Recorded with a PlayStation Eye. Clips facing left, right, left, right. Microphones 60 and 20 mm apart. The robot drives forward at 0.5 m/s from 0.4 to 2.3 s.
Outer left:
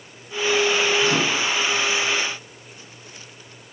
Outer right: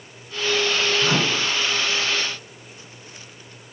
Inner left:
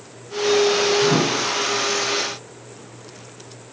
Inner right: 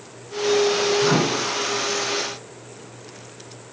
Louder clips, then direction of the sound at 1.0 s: Outer left 1 dB, inner left 1 dB; 35° right (ahead or behind).